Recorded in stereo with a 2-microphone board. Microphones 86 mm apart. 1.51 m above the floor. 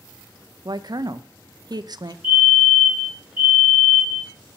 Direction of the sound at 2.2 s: 70° left (ahead or behind).